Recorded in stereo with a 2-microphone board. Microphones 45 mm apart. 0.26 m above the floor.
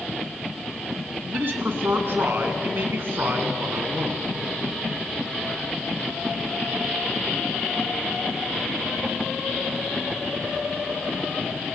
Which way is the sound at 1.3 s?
55° right (ahead or behind).